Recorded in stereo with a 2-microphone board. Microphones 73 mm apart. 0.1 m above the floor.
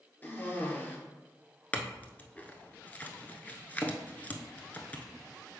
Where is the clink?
20° left (ahead or behind), 0.8 m.